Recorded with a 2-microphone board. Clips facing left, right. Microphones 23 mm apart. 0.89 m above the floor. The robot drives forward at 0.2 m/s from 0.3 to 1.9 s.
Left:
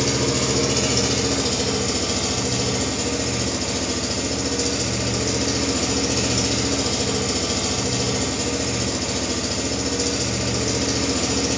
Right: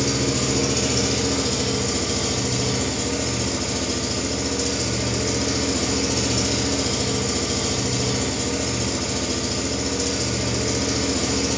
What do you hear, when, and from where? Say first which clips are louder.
0.0 s an engine running: left 1 dB; 25° left (ahead or behind), 1.1 m; by 11.6 s 20° left (ahead or behind), 1.4 m